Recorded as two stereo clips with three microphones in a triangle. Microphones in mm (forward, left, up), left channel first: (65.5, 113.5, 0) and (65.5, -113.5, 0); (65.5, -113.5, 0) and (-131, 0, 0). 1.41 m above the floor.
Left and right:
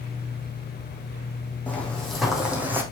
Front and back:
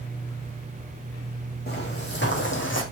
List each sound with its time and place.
1.7 s footsteps: 10° left, 3.5 m; by 2.8 s 10° right, 3.5 m